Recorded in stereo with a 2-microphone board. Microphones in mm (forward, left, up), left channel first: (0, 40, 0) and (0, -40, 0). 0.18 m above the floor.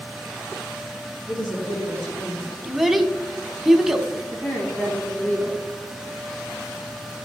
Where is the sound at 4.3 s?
25° left (ahead or behind), 3.5 m.